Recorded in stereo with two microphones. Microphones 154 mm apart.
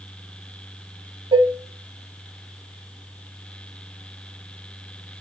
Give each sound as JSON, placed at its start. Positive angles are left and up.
{"t": 1.3, "sound": "dishes clattering", "side_deg": -35, "distance_m": 1.4}